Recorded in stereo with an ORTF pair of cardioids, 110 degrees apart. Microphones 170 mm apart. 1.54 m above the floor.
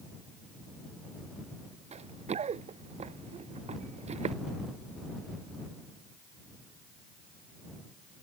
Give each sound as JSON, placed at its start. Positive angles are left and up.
{"t": 1.9, "sound": "running footsteps", "azimuth_deg": -40}